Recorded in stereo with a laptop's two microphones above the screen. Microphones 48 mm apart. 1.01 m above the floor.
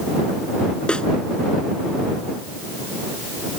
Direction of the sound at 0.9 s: 20° left (ahead or behind).